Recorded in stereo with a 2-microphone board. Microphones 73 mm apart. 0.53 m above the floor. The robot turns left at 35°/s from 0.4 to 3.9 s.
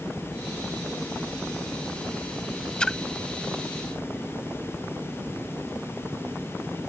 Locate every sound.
2.8 s a splash: 15° left (ahead or behind); by 3.0 s 5° left (ahead or behind)